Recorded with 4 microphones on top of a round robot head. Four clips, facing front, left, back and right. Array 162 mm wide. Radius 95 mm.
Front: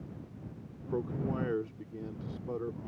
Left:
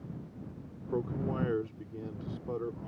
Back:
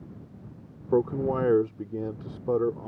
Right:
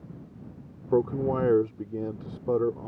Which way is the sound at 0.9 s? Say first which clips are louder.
Right 9 dB, back 10 dB; 135° right.